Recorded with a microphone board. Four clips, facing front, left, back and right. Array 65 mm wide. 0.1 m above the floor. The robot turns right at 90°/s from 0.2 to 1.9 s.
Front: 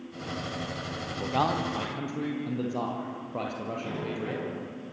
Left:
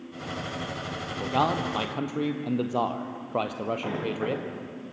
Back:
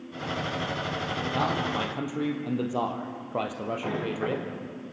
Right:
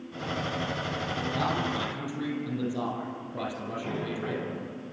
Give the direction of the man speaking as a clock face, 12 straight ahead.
10 o'clock.